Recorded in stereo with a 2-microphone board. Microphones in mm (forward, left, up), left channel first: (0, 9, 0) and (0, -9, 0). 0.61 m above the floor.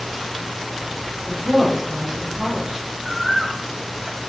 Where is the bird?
35° right (ahead or behind), 1.4 m.